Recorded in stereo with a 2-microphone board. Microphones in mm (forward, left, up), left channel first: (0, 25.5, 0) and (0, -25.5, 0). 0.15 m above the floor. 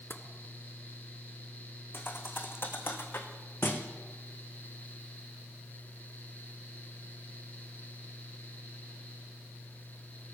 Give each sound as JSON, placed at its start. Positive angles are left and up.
{"t": 0.1, "sound": "tapping", "side_deg": 45, "distance_m": 1.1}
{"t": 1.9, "sound": "a thud", "side_deg": 45, "distance_m": 1.7}